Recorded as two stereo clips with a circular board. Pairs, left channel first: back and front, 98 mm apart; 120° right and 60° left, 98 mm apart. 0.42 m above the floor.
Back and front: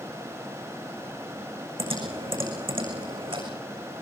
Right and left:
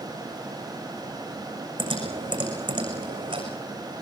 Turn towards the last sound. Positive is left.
turn(degrees=25)